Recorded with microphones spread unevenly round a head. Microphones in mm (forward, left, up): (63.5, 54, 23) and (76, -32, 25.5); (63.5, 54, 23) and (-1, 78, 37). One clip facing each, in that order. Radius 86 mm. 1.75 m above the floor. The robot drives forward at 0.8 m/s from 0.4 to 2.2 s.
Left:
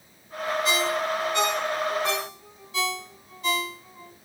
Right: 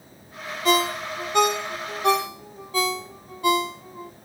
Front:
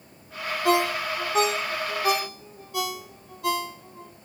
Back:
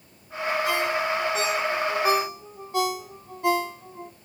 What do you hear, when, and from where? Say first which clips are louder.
0.7 s a ringtone: right 6 dB, front 6 dB; 55° right, 1.1 m; by 4.1 s 135° right, 1.2 m